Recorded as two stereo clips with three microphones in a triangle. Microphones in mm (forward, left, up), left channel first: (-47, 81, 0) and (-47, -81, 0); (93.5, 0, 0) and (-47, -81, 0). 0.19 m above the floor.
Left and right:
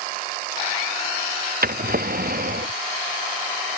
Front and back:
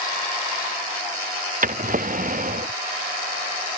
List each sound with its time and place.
1.6 s a drawer: 115° right